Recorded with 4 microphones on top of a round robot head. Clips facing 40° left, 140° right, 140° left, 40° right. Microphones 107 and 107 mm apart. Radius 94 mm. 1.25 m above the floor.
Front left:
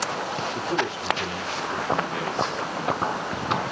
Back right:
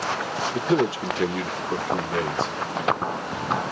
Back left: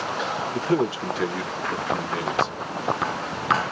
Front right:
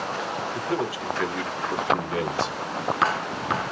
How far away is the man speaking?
About 0.7 m.